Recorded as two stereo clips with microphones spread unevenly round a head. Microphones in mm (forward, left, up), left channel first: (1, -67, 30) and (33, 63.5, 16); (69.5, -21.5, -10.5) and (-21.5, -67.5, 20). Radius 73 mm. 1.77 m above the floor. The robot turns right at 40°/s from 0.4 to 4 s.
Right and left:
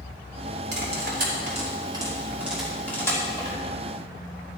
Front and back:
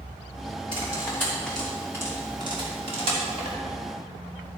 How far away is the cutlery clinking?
About 2.5 m.